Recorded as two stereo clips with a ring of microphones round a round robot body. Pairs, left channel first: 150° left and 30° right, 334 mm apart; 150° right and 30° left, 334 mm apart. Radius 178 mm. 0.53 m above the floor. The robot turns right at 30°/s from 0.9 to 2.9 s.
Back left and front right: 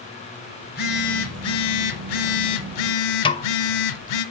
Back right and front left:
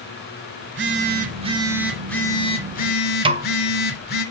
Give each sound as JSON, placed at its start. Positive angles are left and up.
{"t": 0.6, "sound": "a phone buzzing", "azimuth_deg": 90, "distance_m": 0.8}
{"t": 3.2, "sound": "a snare drum", "azimuth_deg": 90, "distance_m": 0.7}